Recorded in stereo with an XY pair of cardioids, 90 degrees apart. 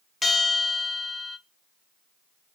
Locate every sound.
0.2 s a bell: 25° left, 0.8 m